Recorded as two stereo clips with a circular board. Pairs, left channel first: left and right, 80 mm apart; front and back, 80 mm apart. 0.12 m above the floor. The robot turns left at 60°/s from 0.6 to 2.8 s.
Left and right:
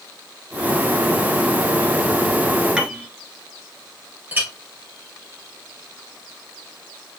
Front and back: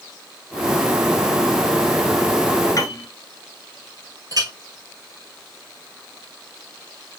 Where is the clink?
155° right, 2 m.